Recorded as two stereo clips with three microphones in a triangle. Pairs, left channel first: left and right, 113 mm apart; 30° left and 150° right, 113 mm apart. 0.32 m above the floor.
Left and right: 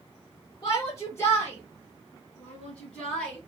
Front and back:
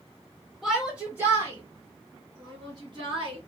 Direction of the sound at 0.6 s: 120° left.